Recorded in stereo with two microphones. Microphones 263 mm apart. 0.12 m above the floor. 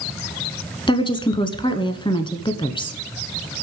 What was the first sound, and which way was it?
A woman speaking, 20° left (ahead or behind).